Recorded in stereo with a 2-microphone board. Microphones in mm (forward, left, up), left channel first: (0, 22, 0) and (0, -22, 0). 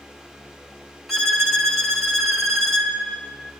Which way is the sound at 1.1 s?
5° left (ahead or behind).